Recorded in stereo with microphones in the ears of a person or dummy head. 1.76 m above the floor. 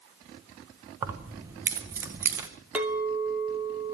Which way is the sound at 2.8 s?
10° right (ahead or behind).